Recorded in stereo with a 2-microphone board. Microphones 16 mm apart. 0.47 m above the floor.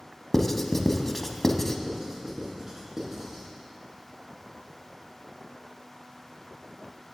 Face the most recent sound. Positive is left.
turn(degrees=-20)  # may be behind; listen again after turning